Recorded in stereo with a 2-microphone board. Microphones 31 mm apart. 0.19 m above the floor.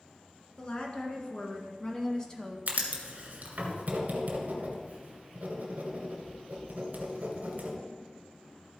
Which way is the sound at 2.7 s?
55° right (ahead or behind).